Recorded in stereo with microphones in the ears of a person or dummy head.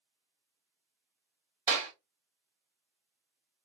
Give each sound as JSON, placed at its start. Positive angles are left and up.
{"t": 1.7, "sound": "a clap", "side_deg": -20, "distance_m": 3.0}